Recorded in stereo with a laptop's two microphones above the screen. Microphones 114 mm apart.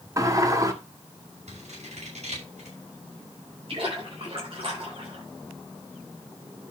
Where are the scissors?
80° right, 6 m.